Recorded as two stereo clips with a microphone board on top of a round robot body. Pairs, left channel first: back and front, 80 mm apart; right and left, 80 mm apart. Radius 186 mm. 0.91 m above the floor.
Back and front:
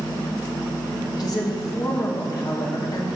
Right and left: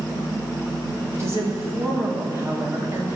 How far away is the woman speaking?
About 2.5 m.